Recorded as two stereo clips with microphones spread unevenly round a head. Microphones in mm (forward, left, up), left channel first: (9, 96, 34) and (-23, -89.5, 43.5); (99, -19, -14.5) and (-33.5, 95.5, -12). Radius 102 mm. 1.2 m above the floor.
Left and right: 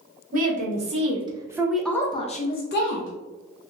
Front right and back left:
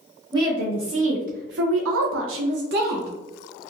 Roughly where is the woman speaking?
Behind right.